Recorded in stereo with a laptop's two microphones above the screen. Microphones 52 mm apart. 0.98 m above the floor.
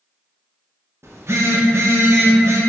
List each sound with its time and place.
1.0 s a phone buzzing: 55° right (ahead or behind), 0.5 m